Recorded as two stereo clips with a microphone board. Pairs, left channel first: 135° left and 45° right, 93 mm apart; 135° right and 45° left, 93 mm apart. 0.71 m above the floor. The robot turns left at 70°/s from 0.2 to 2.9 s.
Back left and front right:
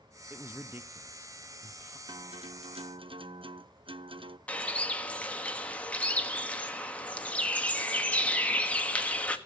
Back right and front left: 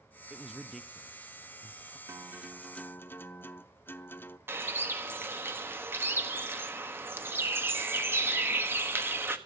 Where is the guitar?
10° right, 0.5 m; by 4.4 s 65° right, 0.5 m.